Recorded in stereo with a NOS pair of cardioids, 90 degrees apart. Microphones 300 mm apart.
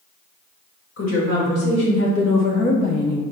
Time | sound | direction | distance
1.0 | a woman speaking | 55° left | 1.9 m